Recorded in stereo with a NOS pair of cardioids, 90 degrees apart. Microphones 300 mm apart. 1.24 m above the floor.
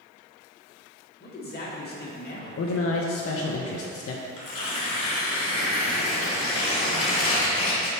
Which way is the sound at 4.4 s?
50° left.